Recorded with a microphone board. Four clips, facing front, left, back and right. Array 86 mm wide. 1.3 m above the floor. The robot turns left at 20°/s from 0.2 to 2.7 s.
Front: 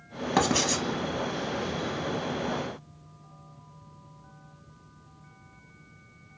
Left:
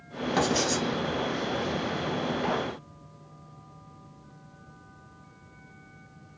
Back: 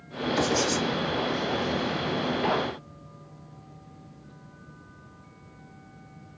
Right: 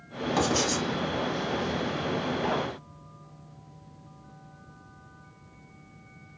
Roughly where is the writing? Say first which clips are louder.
Left 1 dB, even; ahead.